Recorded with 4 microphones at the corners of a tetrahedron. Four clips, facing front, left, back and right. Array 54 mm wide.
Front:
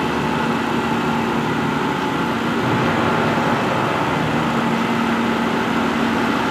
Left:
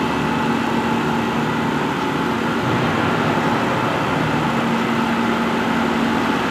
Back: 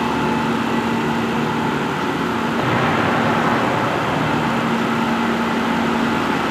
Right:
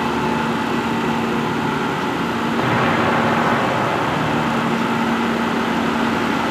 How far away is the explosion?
About 1.6 m.